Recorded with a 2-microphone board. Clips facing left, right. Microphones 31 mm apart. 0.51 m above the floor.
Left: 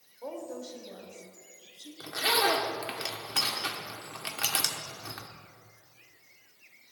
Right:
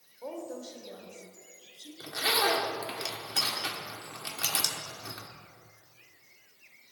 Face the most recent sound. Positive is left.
turn(degrees=35)  # may be behind; listen again after turning